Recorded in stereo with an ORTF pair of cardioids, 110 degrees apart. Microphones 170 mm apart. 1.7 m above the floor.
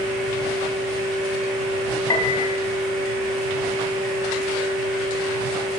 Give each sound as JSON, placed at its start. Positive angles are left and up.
{"t": 0.0, "sound": "a fan", "azimuth_deg": -60, "distance_m": 3.0}
{"t": 2.1, "sound": "a piano", "azimuth_deg": 20, "distance_m": 1.1}